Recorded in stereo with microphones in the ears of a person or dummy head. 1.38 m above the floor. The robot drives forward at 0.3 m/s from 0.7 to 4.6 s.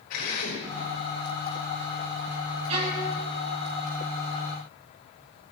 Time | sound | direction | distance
0.1 | a drill | 50° left (ahead or behind) | 5.5 m
2.7 | a violin | 35° right (ahead or behind) | 4 m